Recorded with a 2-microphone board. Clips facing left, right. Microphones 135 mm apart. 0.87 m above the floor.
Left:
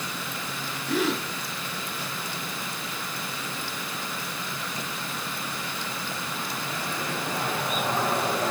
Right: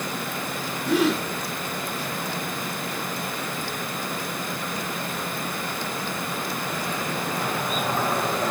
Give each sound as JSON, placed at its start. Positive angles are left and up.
{"t": 0.9, "sound": "a gasp", "side_deg": -80, "distance_m": 5.5}